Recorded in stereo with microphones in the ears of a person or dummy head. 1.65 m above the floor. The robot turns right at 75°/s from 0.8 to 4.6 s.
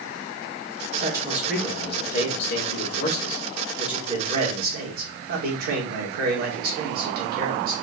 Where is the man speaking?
35° right, 1.6 m; by 7.7 s 120° right, 1.6 m.